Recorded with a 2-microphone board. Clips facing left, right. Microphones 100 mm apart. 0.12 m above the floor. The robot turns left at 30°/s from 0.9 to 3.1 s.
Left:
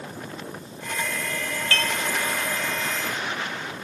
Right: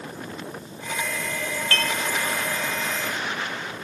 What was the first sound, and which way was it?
Dishes clattering, 40° right (ahead or behind).